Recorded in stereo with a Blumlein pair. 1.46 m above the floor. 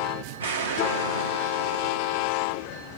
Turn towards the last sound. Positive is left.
turn(degrees=-65)